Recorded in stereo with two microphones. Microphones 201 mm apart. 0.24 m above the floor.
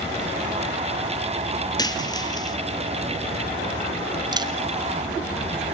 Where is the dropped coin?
20° left (ahead or behind), 2 m.